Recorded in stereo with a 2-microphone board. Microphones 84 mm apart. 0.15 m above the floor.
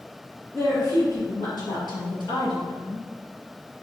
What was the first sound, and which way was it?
A woman speaking, 40° left (ahead or behind).